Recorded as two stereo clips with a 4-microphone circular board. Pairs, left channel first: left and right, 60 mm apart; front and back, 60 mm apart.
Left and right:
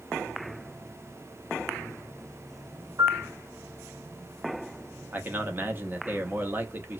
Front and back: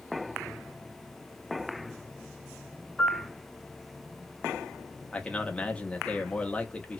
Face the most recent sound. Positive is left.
turn(degrees=-60)